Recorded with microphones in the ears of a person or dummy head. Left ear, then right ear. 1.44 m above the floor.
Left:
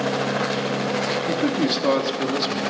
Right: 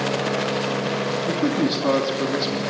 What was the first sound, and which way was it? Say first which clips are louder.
A man speaking: even; 20° left (ahead or behind).